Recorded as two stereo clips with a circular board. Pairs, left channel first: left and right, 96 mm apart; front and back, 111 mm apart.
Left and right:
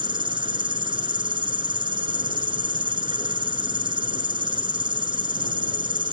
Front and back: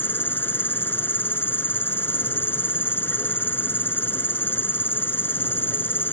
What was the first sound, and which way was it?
An insect, 70° right.